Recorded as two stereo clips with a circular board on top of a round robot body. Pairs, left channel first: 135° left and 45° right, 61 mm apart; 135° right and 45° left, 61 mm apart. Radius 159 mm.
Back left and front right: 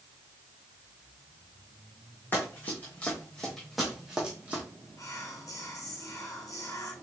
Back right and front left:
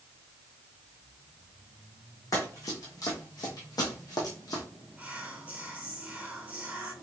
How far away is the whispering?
About 2.0 m.